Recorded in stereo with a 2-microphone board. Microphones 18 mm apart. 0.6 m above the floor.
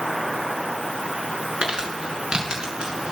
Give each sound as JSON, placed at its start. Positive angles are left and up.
{"t": 1.6, "sound": "crumpling", "side_deg": -60, "distance_m": 6.0}